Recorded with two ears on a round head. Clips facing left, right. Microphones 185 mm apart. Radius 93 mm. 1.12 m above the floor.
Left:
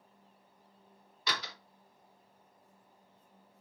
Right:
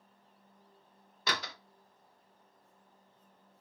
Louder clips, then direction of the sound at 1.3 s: Right 2 dB; 40° right (ahead or behind).